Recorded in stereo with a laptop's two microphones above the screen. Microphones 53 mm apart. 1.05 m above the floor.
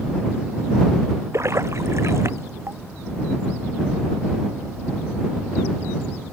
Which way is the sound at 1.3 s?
60° right (ahead or behind).